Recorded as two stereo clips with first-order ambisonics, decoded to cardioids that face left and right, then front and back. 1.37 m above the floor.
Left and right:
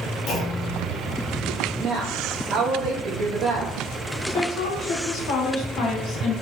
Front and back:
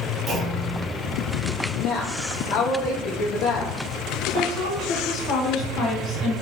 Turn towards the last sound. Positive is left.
turn(degrees=50)